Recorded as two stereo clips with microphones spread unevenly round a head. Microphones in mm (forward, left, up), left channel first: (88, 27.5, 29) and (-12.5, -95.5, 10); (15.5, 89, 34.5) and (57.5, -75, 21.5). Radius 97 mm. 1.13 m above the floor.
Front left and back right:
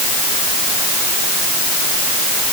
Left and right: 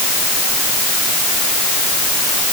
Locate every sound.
Only background noise.